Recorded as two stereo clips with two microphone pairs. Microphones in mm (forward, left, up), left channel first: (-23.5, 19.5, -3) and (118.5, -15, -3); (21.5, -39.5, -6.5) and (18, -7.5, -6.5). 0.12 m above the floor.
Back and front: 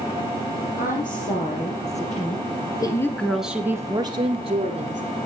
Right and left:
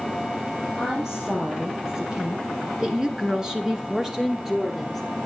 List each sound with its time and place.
0.8 s a woman speaking: 170° left, 3.5 m; by 5.0 s 10° left, 2.5 m